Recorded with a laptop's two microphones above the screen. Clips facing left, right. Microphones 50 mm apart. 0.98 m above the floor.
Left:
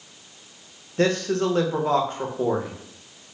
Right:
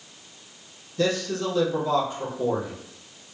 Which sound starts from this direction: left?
A man speaking, at 1.0 s.